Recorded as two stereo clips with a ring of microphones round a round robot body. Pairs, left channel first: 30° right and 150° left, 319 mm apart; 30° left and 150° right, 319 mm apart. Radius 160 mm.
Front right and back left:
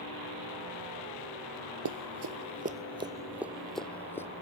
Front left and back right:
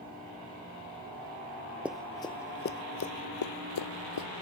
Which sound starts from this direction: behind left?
Running footsteps, at 1.9 s.